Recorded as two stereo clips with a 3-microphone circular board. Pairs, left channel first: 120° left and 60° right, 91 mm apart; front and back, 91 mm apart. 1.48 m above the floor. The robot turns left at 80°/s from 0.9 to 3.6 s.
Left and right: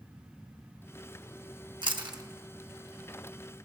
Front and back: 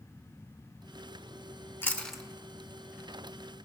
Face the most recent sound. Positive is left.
turn(degrees=155)